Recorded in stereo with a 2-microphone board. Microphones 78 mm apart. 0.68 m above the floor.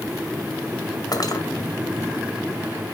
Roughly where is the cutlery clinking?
Left.